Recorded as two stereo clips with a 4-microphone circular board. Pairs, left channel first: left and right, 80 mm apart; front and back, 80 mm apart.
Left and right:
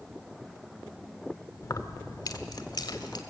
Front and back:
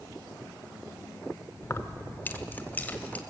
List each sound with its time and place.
1.6 s keys jangling: 50° left, 0.9 m; by 3.2 s 70° left, 1.9 m